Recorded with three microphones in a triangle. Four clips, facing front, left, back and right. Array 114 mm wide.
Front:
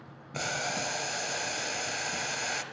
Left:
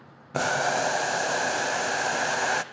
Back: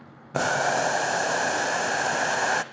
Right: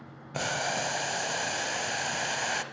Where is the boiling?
155° left, 0.5 m.